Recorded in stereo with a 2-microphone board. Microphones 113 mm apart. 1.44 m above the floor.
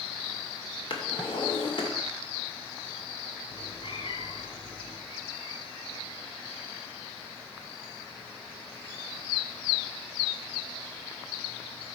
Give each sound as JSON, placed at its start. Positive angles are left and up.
{"t": 0.9, "sound": "a drawer", "side_deg": 50, "distance_m": 2.5}
{"t": 3.5, "sound": "a cat meowing", "side_deg": 60, "distance_m": 1.7}